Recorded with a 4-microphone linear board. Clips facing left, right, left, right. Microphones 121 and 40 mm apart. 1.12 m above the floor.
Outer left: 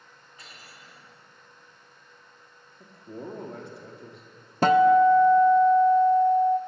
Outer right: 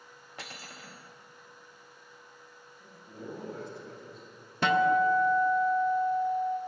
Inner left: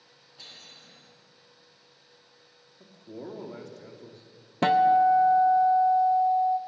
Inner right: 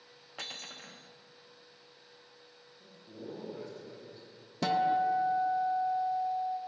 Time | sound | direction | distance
0.4 | cutlery clinking | 70° right (ahead or behind) | 0.9 m
2.8 | a man speaking | 60° left (ahead or behind) | 2 m
4.6 | a guitar | 40° left (ahead or behind) | 0.6 m